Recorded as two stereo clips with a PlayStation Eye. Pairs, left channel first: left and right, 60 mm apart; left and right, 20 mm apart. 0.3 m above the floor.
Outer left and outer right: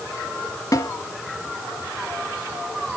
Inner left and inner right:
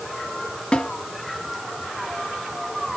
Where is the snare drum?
65° left (ahead or behind), 1.2 m.